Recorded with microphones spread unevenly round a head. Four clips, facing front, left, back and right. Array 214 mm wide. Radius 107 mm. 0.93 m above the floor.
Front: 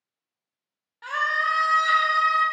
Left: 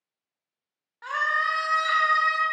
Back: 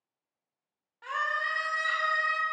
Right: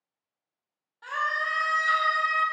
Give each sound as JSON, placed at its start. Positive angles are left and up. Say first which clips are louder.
{"t": 1.0, "sound": "a scream", "louder": "left 3 dB, front 6 dB", "azimuth_deg": 45, "distance_m": 0.7}